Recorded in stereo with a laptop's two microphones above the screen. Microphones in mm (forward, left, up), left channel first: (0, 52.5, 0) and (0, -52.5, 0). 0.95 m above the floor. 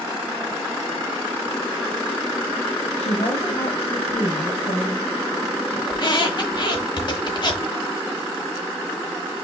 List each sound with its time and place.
3.0 s a woman speaking: 80° left, 1.4 m
5.9 s a squeak: 50° left (ahead or behind), 1.1 m